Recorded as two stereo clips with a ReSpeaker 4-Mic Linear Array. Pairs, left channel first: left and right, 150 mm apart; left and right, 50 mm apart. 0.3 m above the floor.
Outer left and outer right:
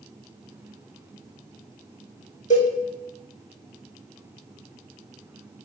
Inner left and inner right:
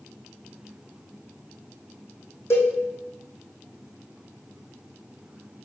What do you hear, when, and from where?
2.5 s a cowbell: 55° left (ahead or behind), 2 m